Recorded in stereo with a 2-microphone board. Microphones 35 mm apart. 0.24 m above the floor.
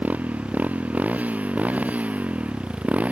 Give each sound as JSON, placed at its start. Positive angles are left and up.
{"t": 0.0, "sound": "a motorcycle", "side_deg": -50}